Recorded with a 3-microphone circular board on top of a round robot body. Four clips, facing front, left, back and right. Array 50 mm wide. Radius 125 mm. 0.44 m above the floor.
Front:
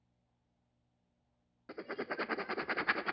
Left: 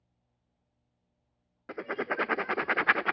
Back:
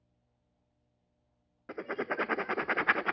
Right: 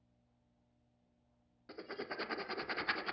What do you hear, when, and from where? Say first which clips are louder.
1.7 s writing: left 12 dB, back 6 dB; 115° left, 0.6 m